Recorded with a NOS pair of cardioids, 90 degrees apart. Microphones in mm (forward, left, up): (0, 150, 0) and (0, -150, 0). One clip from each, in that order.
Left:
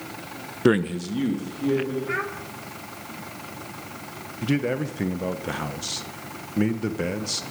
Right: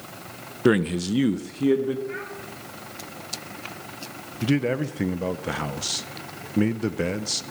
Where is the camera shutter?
No camera shutter in this recording.